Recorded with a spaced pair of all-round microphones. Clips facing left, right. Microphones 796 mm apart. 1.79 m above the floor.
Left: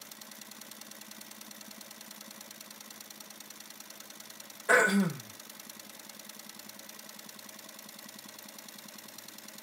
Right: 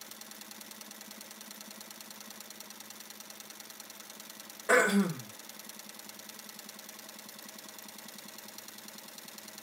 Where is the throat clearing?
25° left (ahead or behind), 1.0 m.